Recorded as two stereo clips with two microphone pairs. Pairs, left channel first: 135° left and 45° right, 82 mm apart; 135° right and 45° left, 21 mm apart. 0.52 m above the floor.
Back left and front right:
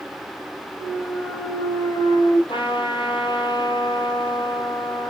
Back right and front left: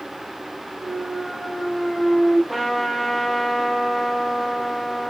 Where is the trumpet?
140° left, 3.5 m.